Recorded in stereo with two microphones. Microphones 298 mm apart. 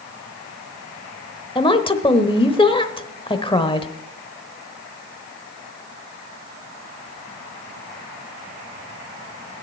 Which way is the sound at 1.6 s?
15° left (ahead or behind).